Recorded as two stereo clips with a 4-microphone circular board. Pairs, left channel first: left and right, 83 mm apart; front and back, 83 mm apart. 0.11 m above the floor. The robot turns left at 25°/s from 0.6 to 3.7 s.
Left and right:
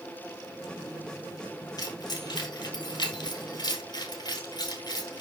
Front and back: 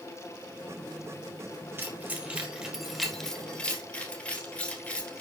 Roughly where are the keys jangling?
Behind left.